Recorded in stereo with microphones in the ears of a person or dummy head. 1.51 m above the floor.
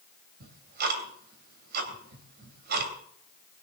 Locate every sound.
0.4 s ticking: 55° right (ahead or behind), 2.5 m